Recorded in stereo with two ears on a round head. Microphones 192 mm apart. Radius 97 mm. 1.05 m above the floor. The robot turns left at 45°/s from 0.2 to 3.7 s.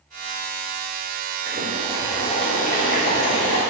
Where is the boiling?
165° right, 3.5 m; by 3.6 s 100° left, 3.5 m.